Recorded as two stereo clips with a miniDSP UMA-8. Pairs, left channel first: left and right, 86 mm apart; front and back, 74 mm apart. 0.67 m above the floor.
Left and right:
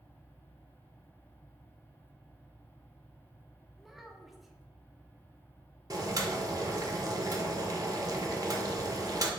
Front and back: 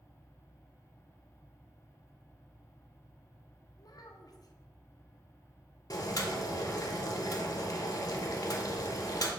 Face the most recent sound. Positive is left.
turn(degrees=-45)